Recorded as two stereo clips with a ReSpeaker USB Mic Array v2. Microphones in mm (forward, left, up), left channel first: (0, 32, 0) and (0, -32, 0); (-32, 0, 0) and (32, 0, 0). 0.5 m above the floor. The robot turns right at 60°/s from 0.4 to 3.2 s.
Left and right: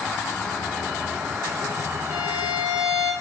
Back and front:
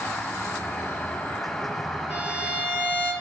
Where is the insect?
150° left, 1.4 m; by 3.2 s 45° right, 1.4 m.